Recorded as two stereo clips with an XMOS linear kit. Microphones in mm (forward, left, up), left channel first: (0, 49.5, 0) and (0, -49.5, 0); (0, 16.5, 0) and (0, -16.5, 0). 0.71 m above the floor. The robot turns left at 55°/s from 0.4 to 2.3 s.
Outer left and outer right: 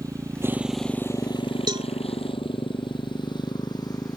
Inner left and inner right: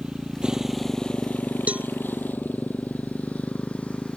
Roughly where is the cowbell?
Right.